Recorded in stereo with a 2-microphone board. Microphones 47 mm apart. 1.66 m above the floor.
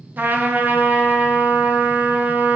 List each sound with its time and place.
0.2 s a trumpet: 35° right (ahead or behind), 0.8 m